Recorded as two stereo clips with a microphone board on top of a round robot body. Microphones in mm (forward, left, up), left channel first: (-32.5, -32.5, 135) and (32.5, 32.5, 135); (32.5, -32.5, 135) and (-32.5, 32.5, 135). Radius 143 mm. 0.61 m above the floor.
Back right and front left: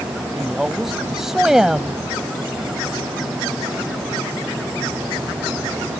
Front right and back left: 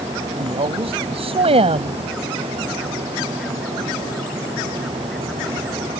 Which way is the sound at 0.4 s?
130° left.